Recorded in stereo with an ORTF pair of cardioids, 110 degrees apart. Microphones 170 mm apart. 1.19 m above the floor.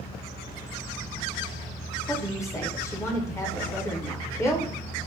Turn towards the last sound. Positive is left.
turn(degrees=15)